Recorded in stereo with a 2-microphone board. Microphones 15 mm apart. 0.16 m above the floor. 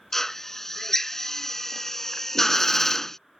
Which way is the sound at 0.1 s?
25° left (ahead or behind).